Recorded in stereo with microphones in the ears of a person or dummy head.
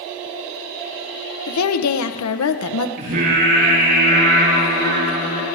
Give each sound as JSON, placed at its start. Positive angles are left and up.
{"t": 1.5, "sound": "a woman speaking", "side_deg": 90, "distance_m": 0.9}
{"t": 3.0, "sound": "singing", "side_deg": -65, "distance_m": 4.5}